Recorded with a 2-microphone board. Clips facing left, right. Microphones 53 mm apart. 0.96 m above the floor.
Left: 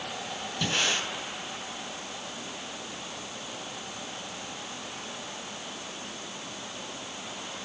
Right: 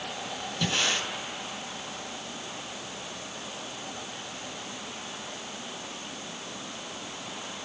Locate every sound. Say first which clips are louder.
0.6 s breathing: even; 5° left (ahead or behind), 3.5 m